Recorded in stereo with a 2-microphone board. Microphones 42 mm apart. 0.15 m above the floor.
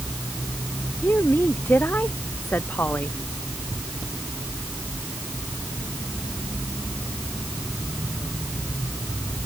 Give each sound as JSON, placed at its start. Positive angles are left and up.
{"t": 1.0, "sound": "a woman speaking", "side_deg": 55}